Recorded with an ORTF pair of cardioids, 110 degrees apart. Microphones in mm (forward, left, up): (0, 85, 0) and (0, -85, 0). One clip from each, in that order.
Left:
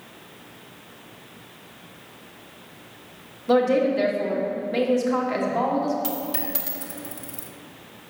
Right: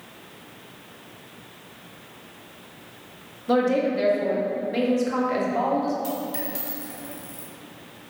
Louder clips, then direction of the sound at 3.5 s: Left 2 dB; 10° left.